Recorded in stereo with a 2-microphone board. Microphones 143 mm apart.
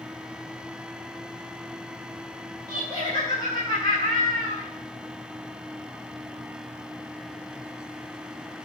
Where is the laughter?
40° left (ahead or behind), 2.5 m.